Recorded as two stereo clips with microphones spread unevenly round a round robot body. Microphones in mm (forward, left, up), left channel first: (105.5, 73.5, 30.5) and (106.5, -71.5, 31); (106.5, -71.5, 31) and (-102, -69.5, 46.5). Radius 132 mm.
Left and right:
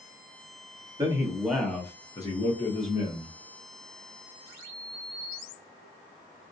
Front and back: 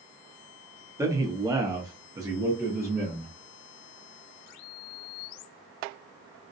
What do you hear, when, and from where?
1.0 s a man speaking: 115° right, 0.9 m; by 3.3 s 105° left, 1.2 m